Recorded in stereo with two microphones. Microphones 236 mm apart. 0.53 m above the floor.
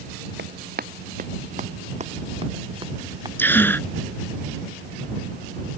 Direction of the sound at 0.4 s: 45° right (ahead or behind).